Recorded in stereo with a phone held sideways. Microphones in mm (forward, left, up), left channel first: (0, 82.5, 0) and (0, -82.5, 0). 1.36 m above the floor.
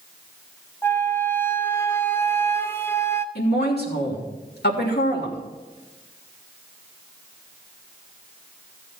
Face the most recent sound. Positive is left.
turn(degrees=80)